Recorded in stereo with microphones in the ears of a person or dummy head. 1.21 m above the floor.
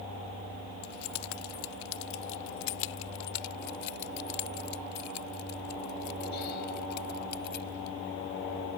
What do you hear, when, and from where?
0.8 s keys jangling: 80° left; by 8.0 s 55° left (ahead or behind)